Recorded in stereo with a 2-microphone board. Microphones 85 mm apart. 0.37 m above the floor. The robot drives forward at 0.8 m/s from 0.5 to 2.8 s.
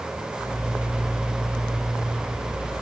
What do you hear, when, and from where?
Only background noise.